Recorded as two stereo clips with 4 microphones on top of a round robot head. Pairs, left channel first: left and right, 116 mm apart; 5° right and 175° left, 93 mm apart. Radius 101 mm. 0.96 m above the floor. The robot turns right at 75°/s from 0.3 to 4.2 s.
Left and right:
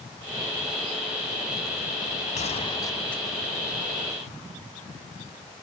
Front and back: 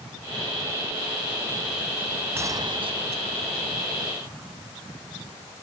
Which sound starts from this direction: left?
A gunshot, at 2.4 s.